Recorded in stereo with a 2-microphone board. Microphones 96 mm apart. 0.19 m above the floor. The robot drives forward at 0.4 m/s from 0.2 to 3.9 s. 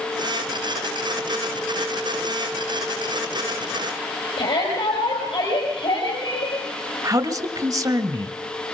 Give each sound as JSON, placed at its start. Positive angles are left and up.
{"t": 4.4, "sound": "a shout", "side_deg": 70, "distance_m": 5.0}
{"t": 7.0, "sound": "a man speaking", "side_deg": -40, "distance_m": 1.7}